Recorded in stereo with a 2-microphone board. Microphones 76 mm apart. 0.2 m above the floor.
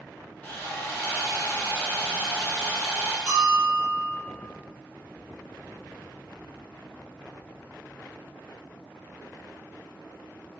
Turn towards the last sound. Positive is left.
turn(degrees=-15)  # may be behind; listen again after turning